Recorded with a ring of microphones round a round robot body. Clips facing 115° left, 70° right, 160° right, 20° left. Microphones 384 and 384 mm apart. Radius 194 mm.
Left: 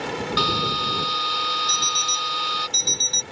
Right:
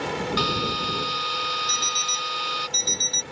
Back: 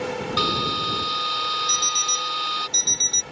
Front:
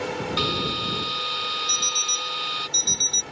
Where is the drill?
160° left.